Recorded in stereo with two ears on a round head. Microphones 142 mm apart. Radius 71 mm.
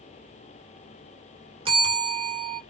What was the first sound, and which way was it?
A bell, 35° right (ahead or behind).